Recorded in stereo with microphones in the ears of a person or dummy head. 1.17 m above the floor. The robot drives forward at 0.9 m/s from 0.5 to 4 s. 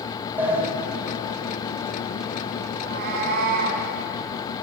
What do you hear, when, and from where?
0.4 s a sliding door: 10° right (ahead or behind), 4.5 m
2.8 s a cat meowing: 65° right (ahead or behind), 4.5 m; by 3.9 s 55° right (ahead or behind), 5 m